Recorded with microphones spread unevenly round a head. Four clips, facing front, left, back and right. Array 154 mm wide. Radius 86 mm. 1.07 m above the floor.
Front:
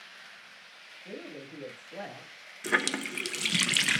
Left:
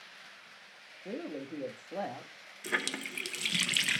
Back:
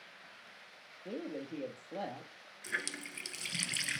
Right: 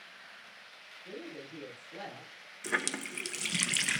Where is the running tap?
5° right, 0.6 m.